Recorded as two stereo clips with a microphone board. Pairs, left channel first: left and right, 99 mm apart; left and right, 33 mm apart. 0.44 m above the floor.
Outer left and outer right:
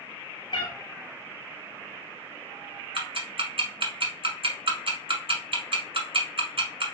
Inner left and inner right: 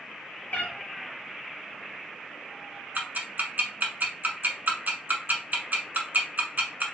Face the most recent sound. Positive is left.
turn(degrees=-65)  # may be behind; listen again after turning